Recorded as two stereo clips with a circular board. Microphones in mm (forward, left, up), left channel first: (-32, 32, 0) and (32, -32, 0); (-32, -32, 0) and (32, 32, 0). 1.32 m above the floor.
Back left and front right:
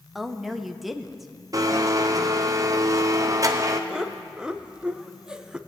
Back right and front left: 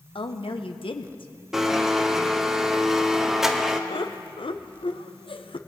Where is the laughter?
125° right, 0.5 m.